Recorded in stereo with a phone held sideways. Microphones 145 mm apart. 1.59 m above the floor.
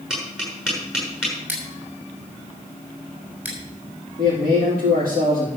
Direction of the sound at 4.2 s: 85° right.